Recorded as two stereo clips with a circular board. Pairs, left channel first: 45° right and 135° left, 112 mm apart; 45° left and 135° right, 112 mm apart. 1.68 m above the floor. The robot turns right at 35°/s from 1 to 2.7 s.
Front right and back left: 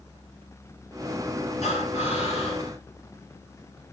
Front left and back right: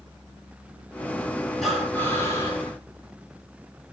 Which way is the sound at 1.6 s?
45° right.